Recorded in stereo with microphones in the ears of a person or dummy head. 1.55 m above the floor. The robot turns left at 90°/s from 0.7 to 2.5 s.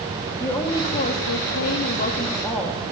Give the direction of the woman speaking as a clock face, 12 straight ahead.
7 o'clock.